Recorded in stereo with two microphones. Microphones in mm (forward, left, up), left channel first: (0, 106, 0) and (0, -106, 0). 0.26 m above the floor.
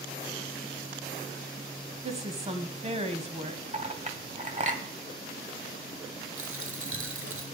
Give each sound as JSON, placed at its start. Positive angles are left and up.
{"t": 2.0, "sound": "a woman speaking", "side_deg": -30, "distance_m": 1.2}
{"t": 3.7, "sound": "a clink", "side_deg": -35, "distance_m": 1.0}
{"t": 6.4, "sound": "a dropped coin", "side_deg": -85, "distance_m": 1.7}